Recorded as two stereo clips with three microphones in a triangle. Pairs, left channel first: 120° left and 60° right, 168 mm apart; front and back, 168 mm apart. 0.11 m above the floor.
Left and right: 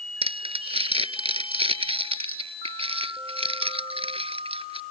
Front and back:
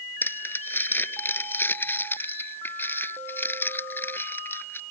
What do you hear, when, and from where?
0.2 s crumpling: 70° right